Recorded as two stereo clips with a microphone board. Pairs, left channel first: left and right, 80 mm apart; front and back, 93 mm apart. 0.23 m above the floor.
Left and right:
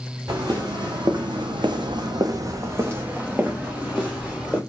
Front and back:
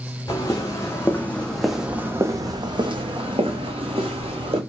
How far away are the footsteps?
About 1.2 m.